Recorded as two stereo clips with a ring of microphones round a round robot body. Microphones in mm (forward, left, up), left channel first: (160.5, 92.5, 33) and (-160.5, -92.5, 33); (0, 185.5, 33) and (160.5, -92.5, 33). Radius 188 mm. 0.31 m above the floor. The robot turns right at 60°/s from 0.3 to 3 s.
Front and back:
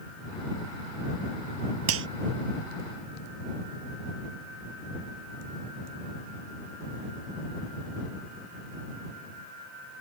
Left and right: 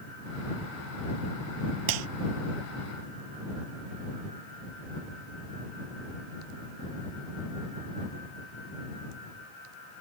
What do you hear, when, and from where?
1.9 s a clap: 100° right; by 2.1 s 85° right